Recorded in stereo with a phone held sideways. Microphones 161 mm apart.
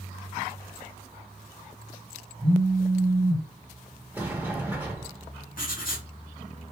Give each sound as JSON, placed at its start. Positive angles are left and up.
{"t": 2.4, "sound": "a phone buzzing", "side_deg": 5, "distance_m": 1.6}
{"t": 4.1, "sound": "a sliding door", "side_deg": -10, "distance_m": 0.9}
{"t": 5.6, "sound": "writing", "side_deg": 60, "distance_m": 1.5}